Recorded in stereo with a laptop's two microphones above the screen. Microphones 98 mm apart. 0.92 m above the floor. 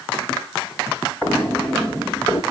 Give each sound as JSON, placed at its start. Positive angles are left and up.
{"t": 1.2, "sound": "footsteps", "side_deg": 15, "distance_m": 1.5}